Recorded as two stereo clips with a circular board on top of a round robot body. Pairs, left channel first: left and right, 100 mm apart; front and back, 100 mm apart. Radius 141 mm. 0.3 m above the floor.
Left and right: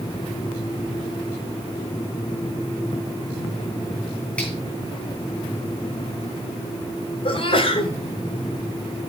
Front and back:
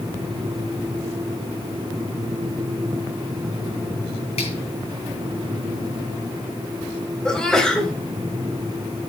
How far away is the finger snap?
About 7 m.